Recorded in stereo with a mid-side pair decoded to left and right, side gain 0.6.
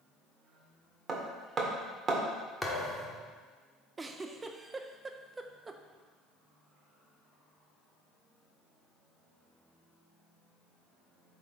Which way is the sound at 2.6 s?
10° left.